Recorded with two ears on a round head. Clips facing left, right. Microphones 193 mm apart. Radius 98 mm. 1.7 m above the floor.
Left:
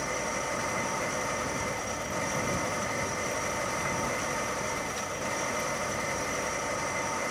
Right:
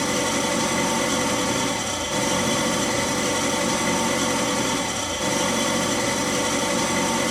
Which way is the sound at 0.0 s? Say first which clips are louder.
Right 10 dB; 80° right.